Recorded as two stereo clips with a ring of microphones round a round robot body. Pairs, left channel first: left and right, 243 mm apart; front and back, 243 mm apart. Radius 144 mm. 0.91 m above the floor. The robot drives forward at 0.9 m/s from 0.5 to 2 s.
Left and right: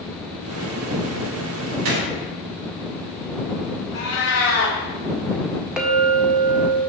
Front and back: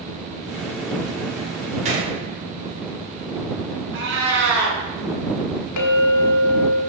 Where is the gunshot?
115° right, 1.7 m; by 2.1 s 120° right, 1.8 m.